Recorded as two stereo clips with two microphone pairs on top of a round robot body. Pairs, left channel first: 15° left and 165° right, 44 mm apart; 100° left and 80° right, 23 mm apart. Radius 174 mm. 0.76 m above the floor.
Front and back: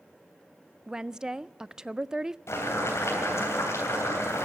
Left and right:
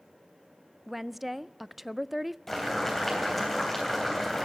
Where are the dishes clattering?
No dishes clattering in this recording.